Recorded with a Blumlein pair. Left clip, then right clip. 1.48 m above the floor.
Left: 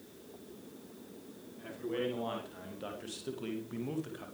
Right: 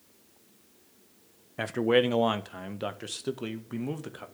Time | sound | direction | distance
1.6 | a man speaking | 45° right | 1.1 m